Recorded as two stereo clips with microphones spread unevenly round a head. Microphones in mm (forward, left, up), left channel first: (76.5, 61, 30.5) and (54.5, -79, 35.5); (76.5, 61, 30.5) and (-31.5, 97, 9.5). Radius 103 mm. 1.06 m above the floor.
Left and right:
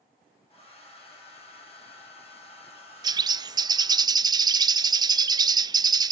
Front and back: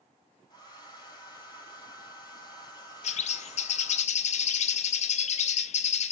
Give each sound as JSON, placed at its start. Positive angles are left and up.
{"t": 0.5, "sound": "a hair dryer", "azimuth_deg": 35, "distance_m": 6.0}
{"t": 3.0, "sound": "a bird", "azimuth_deg": -40, "distance_m": 0.6}